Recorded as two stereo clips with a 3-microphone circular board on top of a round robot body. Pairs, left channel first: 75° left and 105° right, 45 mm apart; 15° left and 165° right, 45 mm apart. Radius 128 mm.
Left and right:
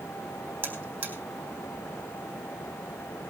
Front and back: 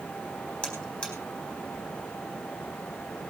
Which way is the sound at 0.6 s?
50° right.